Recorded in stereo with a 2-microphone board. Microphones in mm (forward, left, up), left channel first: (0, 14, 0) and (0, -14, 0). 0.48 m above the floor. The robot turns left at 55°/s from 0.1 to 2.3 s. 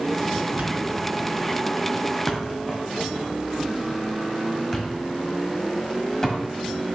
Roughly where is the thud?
Right.